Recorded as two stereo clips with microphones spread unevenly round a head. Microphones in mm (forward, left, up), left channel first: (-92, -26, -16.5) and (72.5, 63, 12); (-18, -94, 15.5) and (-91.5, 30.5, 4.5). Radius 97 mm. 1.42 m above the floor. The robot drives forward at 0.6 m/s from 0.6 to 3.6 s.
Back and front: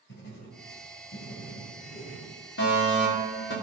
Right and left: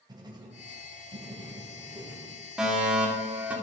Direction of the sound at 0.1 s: Straight behind.